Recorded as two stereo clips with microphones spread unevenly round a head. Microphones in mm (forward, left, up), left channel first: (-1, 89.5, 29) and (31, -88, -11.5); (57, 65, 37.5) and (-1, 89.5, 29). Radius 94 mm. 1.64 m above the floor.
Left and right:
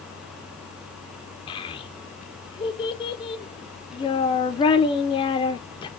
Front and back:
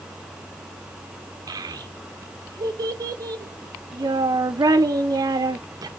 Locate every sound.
1.5 s a child speaking: 145° left, 0.6 m